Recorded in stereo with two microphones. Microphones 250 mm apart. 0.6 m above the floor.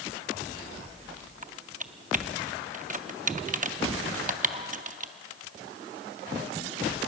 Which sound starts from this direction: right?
Typing on a keyboard, at 1.4 s.